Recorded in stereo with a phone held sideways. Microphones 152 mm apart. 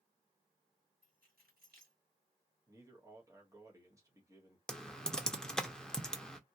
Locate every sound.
1.0 s keys jangling: 90° right, 1.7 m
2.7 s a man speaking: 20° right (ahead or behind), 1.4 m
4.7 s typing on a keyboard: 5° left (ahead or behind), 0.7 m